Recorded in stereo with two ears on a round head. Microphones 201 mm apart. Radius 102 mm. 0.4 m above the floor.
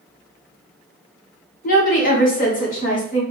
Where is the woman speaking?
35° left (ahead or behind), 1.0 m.